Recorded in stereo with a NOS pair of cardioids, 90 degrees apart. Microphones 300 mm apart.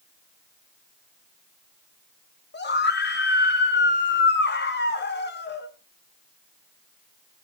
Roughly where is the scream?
Ahead left.